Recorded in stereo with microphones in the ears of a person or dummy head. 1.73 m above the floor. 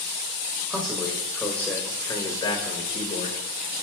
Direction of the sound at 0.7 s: 5° right (ahead or behind).